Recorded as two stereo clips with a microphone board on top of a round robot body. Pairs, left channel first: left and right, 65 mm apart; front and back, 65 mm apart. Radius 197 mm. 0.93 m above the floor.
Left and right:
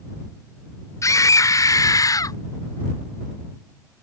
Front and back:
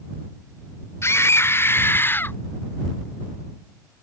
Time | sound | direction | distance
1.0 | a scream | 50° left | ?